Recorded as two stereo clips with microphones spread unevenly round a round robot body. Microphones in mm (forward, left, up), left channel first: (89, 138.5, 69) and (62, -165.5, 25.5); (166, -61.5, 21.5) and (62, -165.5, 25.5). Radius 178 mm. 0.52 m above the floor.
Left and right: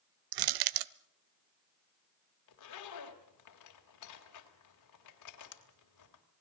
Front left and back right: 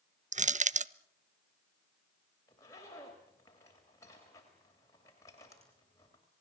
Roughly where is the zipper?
Behind left.